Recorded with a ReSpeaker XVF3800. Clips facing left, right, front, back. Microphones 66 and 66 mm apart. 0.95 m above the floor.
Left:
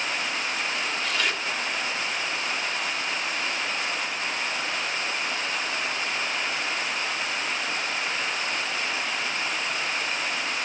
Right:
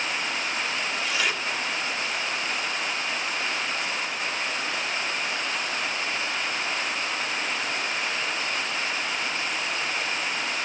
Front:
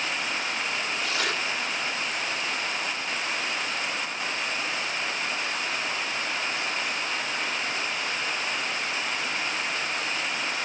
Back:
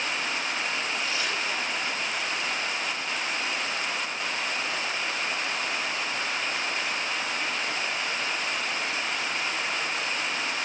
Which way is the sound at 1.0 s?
5° right.